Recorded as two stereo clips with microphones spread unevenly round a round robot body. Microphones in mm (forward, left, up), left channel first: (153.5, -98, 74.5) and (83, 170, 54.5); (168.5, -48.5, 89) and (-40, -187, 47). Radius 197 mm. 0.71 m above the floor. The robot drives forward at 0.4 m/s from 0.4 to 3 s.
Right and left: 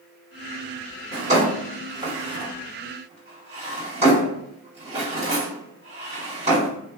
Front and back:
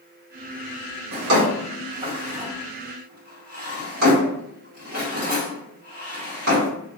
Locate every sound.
1.1 s a drawer: 175° left, 0.8 m; by 6.7 s straight behind, 1.6 m